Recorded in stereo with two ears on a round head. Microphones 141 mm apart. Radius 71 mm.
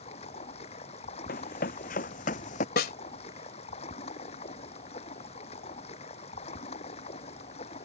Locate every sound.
0.0 s running water: 40° left (ahead or behind)
1.3 s running footsteps: 60° left (ahead or behind); by 2.7 s 50° left (ahead or behind)
2.8 s a snare drum: 65° left (ahead or behind)